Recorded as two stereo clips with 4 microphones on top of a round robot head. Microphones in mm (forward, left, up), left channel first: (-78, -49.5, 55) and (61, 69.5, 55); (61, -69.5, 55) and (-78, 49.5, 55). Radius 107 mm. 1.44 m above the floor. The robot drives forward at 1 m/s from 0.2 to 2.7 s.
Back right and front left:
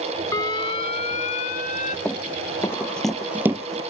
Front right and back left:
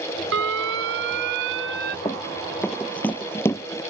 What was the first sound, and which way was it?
An alarm, 150° left.